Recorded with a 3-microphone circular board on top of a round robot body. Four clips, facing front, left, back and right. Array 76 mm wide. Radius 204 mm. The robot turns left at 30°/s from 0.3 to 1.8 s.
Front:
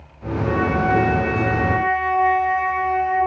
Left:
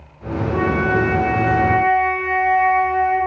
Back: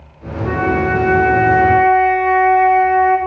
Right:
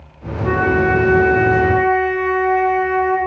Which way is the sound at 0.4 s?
125° right.